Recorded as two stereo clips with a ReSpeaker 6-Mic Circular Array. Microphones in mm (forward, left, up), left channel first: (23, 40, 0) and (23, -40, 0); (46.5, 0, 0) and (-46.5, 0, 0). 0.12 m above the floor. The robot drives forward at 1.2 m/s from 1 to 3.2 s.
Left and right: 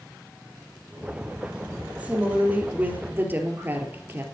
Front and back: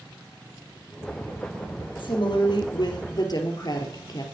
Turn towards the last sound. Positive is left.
turn(degrees=-30)